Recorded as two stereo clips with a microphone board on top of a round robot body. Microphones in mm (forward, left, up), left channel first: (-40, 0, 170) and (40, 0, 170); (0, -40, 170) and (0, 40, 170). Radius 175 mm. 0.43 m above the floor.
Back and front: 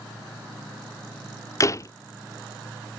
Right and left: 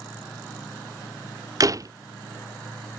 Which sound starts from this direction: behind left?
A door slam, at 1.6 s.